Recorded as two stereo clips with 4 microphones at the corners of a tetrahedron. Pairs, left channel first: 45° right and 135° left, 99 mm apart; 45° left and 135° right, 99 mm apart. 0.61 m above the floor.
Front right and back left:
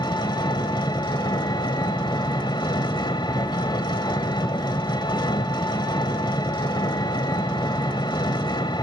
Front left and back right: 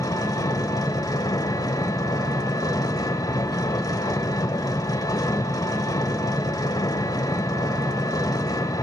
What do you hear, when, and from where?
0.0 s an engine running: 5° right, 1.4 m